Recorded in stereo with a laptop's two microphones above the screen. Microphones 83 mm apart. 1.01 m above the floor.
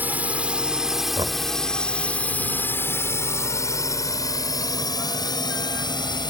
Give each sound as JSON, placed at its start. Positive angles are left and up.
{"t": 0.0, "sound": "a drone", "side_deg": -20}
{"t": 1.2, "sound": "knocking", "side_deg": -70}